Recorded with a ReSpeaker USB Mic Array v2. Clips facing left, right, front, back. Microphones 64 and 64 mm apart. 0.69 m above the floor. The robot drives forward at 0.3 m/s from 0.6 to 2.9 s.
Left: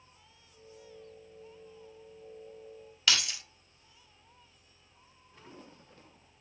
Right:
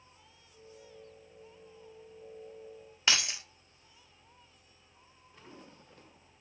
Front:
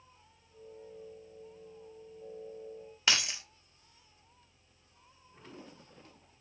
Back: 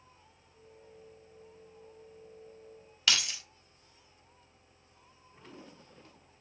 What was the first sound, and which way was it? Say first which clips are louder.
Keys jangling: even, even; 45° right.